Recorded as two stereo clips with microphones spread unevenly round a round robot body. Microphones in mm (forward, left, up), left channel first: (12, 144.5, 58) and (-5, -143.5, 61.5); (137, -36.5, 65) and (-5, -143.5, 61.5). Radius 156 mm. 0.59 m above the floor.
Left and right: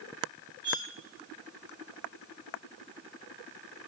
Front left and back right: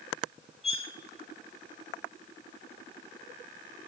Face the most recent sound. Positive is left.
turn(degrees=-20)